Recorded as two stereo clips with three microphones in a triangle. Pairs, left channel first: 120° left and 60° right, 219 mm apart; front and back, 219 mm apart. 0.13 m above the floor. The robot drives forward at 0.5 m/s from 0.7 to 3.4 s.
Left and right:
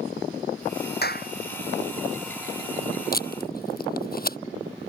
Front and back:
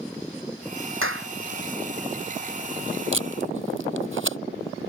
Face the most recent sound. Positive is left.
turn(degrees=165)